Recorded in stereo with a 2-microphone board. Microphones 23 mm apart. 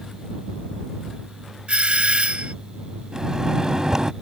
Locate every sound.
1.7 s a doorbell: 60° right (ahead or behind)
3.1 s a microwave: 30° right (ahead or behind)